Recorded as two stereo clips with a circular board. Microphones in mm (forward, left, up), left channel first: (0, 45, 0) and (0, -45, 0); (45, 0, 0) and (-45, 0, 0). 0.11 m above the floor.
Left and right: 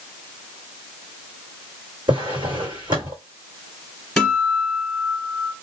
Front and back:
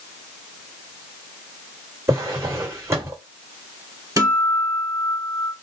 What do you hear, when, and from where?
2.1 s a drawer: 120° right, 1.5 m
4.2 s a guitar: straight behind, 1.8 m